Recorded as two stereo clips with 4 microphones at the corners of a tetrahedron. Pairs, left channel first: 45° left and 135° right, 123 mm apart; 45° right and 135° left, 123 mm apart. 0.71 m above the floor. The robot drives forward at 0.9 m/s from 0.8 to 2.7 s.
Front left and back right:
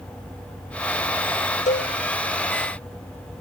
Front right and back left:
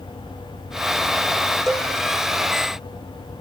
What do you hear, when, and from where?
1.7 s a cowbell: 45° left, 1.1 m; by 1.9 s 55° left, 0.9 m